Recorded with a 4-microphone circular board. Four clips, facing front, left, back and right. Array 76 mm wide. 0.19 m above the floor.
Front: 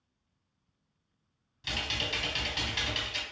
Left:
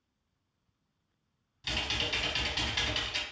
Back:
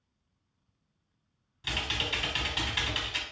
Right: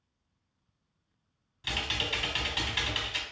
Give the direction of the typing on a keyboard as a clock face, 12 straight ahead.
4 o'clock.